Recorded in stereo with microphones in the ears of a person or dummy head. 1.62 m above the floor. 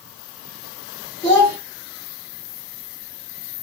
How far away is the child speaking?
About 0.7 m.